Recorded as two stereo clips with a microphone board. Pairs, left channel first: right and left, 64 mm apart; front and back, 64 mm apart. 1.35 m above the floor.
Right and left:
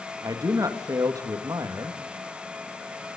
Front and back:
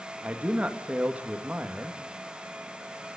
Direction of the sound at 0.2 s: 115° left.